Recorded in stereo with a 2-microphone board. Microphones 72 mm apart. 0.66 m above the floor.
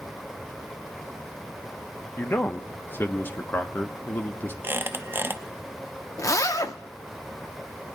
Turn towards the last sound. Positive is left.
turn(degrees=50)  # may be behind; listen again after turning